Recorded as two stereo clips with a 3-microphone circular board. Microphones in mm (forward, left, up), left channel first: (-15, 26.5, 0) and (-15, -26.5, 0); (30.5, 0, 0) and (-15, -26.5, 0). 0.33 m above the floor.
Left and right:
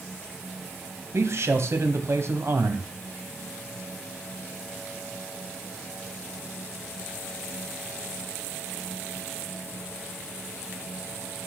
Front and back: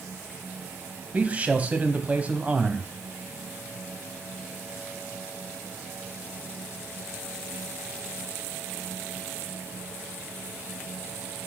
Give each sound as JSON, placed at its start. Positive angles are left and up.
{"t": 1.1, "sound": "a man speaking", "azimuth_deg": -95, "distance_m": 1.7}